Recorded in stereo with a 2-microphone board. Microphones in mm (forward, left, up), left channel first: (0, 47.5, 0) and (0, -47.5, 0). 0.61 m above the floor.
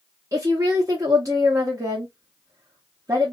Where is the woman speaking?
35° right (ahead or behind), 1.2 m.